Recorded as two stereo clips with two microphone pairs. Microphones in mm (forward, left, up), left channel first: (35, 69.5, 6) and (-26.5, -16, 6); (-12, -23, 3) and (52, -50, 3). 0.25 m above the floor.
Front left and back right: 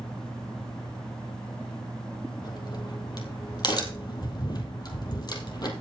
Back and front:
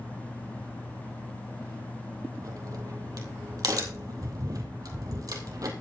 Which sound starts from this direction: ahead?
A crack, at 2.4 s.